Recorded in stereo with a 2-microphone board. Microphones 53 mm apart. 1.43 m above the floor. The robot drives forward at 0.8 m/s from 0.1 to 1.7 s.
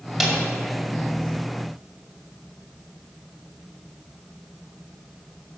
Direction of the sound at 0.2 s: 5° right (ahead or behind).